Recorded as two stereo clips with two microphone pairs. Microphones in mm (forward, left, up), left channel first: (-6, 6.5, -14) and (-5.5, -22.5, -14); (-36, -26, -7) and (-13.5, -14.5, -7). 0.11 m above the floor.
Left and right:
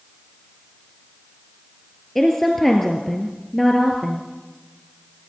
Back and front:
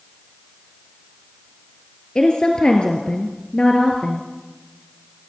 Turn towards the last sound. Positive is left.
turn(degrees=170)